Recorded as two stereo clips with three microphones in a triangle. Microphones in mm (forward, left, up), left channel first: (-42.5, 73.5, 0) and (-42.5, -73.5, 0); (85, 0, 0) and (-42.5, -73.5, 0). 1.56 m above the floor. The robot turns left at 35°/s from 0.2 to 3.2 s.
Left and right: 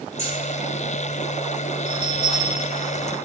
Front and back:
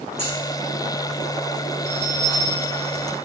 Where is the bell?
135° left, 1.9 m; by 3.1 s 90° left, 1.9 m.